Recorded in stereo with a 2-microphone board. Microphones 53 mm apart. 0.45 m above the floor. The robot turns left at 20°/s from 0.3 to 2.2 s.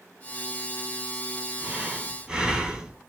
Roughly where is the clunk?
No clunk in this recording.